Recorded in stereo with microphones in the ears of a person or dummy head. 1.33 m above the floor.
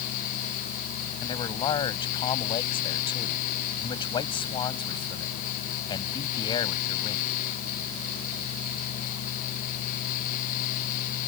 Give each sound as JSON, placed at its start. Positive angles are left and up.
{"t": 1.2, "sound": "a man speaking", "side_deg": 30}